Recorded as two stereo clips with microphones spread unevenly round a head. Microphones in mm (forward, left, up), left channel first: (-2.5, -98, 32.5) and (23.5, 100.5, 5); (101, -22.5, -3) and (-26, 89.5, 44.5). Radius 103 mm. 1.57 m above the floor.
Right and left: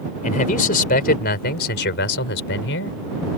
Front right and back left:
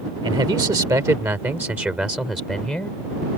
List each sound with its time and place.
0.2 s a man speaking: 155° right; by 3.0 s 130° right